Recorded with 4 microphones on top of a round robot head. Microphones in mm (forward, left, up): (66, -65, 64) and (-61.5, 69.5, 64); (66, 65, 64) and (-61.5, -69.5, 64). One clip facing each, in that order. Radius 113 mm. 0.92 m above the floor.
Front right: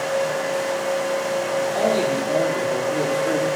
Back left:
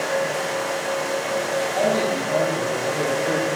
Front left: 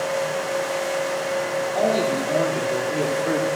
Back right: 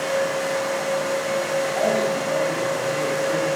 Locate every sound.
1.8 s a man speaking: 5° right, 3 m; by 3.5 s 30° left, 2.5 m